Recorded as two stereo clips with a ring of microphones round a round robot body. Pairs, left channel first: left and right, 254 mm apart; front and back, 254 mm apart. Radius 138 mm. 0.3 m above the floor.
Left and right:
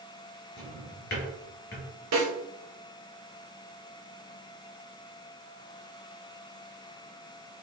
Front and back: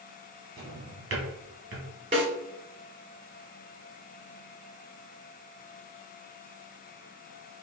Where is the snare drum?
115° right, 2 m.